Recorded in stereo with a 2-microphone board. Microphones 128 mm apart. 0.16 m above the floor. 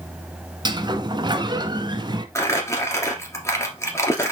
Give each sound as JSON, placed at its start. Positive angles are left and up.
{"t": 0.7, "sound": "a sliding door", "side_deg": -35, "distance_m": 0.7}
{"t": 2.4, "sound": "crumpling", "side_deg": 20, "distance_m": 1.6}